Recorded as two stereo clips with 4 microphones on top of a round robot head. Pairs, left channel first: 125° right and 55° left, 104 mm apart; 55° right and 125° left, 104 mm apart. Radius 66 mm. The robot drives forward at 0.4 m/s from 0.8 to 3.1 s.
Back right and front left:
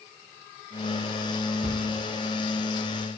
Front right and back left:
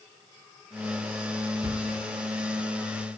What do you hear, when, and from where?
1.6 s a thud: 85° left, 1.9 m; by 1.9 s 90° left, 1.9 m